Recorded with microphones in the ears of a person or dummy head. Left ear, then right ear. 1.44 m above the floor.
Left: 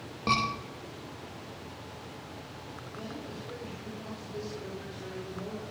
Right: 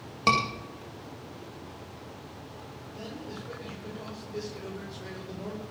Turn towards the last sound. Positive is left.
turn(degrees=-50)  # may be behind; listen again after turning